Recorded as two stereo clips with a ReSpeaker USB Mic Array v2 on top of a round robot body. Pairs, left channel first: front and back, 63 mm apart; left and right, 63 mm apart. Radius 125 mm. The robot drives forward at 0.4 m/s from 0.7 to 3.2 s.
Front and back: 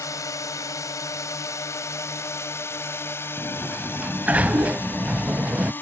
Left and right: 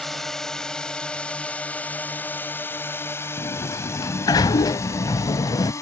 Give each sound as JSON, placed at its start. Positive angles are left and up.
{"t": 0.0, "sound": "a drone", "azimuth_deg": 5}
{"t": 3.4, "sound": "a sliding door", "azimuth_deg": 115}